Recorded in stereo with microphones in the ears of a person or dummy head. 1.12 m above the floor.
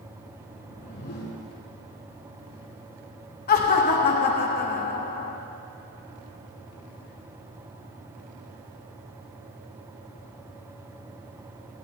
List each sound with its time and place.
0.6 s a whoosh: 55° left (ahead or behind), 3.5 m
3.5 s laughter: 40° left (ahead or behind), 1.0 m